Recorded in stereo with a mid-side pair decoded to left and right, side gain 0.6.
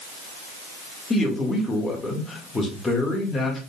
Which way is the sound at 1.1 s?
20° left.